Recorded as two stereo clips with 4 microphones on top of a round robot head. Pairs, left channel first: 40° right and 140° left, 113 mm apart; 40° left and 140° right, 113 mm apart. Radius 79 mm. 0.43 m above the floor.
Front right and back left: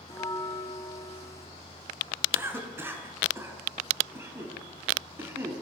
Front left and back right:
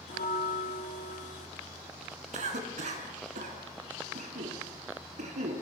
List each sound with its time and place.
0.1 s a bell: 25° left, 1.7 m
2.3 s a cough: 150° right, 6.5 m